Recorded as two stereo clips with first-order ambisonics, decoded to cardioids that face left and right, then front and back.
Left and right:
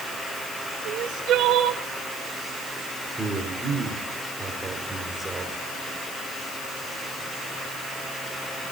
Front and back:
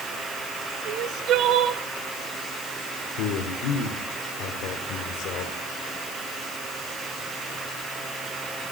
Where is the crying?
135° right, 0.6 m.